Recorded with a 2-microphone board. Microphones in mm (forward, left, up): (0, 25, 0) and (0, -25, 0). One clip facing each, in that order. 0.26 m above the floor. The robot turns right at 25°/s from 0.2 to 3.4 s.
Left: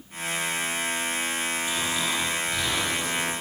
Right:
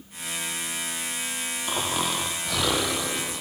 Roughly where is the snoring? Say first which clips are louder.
Even; behind right.